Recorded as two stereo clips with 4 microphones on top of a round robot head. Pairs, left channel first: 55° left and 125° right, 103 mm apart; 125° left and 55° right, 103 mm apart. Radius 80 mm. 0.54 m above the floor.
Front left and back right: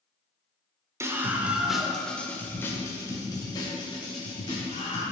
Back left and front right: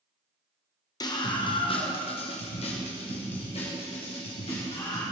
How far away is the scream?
About 2 m.